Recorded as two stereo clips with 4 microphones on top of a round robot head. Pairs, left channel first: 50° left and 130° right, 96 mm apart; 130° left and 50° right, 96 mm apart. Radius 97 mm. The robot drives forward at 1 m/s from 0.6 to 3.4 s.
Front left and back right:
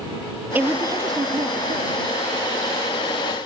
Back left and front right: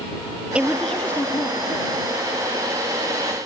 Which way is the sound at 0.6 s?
105° right.